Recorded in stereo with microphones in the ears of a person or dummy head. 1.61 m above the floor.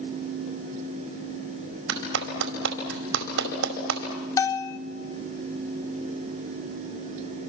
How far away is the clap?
About 4.5 m.